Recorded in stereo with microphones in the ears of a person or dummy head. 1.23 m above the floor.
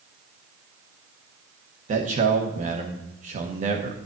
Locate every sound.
1.9 s a man speaking: 40° right (ahead or behind), 1.0 m